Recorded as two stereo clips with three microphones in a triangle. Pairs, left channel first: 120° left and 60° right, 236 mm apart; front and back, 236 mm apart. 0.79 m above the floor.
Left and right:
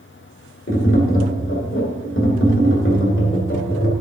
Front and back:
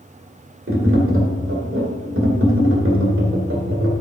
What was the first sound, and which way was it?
Tapping, 150° left.